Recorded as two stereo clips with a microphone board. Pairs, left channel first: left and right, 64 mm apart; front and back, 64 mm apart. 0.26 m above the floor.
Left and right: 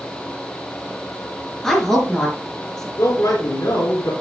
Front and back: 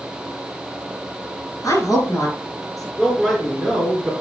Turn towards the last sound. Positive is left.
turn(degrees=80)